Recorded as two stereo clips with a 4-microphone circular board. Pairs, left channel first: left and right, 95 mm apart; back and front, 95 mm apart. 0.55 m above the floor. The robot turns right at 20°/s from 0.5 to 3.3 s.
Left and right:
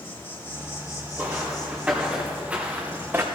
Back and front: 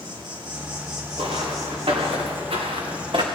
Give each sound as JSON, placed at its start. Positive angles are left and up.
{"t": 0.0, "sound": "an insect", "azimuth_deg": 25, "distance_m": 2.0}
{"t": 1.2, "sound": "footsteps", "azimuth_deg": -20, "distance_m": 3.0}